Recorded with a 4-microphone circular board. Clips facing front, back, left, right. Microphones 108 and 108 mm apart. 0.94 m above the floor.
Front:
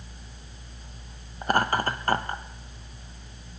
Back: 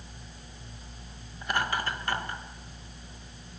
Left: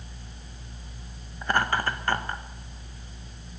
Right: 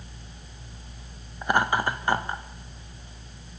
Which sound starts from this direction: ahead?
Laughter, at 1.4 s.